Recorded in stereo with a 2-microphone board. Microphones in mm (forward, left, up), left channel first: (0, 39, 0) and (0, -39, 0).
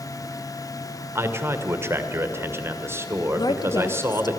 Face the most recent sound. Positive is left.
turn(degrees=60)  # may be behind; listen again after turning